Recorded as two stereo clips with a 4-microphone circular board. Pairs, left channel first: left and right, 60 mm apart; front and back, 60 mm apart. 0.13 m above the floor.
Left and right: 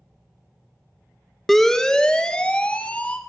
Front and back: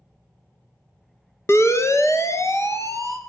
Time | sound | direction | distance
1.5 | a siren | 5° left | 2.5 m